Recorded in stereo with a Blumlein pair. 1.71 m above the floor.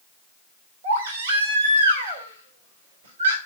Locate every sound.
0.8 s a baby crying: 65° right, 3.5 m